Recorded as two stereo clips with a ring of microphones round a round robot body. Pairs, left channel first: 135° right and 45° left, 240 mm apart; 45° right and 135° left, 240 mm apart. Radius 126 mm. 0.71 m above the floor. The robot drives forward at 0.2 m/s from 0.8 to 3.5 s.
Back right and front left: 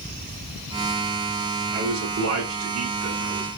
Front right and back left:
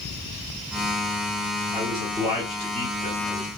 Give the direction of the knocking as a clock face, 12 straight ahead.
No knocking in this recording.